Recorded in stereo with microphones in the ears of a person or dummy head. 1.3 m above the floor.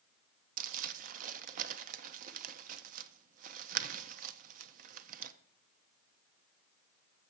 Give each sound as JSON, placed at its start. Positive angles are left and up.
{"t": 0.6, "sound": "crumpling", "side_deg": -50, "distance_m": 0.6}